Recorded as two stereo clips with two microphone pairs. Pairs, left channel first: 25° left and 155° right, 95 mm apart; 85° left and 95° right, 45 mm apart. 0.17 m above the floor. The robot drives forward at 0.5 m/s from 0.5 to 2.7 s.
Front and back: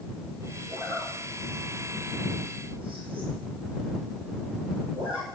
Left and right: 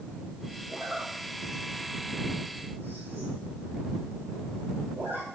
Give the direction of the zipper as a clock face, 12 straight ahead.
5 o'clock.